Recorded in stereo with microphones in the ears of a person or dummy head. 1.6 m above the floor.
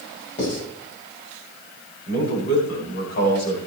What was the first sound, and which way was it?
Writing, 45° left (ahead or behind).